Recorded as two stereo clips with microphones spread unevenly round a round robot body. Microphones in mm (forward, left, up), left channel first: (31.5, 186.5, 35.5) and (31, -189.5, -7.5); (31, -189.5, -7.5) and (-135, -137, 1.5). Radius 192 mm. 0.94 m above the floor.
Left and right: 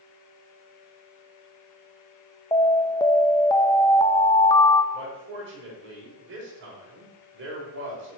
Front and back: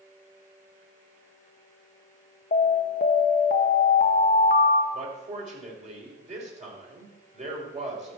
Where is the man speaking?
150° right, 4 m.